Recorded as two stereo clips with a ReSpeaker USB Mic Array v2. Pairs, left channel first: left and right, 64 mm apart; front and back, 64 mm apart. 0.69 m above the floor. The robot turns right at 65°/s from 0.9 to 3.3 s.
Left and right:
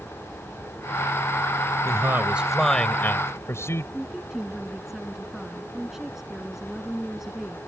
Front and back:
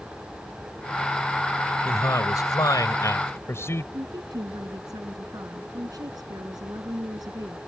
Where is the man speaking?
50° right; by 3.8 s 45° left.